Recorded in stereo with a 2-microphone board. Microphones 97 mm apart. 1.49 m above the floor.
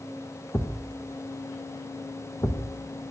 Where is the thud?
30° left (ahead or behind), 1.3 m.